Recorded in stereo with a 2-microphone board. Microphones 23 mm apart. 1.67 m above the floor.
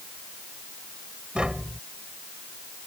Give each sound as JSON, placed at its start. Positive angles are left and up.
{"t": 1.4, "sound": "tapping", "side_deg": -45}